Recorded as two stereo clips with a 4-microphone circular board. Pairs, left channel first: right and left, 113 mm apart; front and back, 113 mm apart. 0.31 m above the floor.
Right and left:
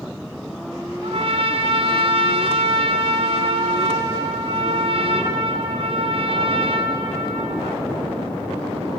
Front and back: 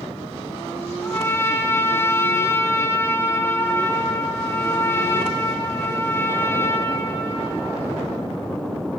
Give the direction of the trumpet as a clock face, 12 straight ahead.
10 o'clock.